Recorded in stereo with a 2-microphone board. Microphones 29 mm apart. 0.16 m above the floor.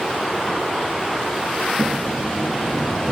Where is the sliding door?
70° left (ahead or behind), 4.5 m.